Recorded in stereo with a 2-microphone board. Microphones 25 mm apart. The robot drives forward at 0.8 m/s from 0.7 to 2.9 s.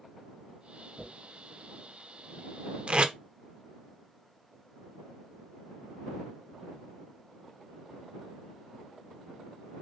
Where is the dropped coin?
35° right (ahead or behind), 2.5 m.